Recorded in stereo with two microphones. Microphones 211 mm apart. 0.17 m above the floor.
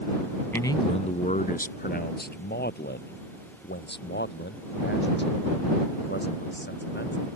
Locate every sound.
0.5 s a man speaking: 10° left (ahead or behind); by 7.3 s 55° left (ahead or behind)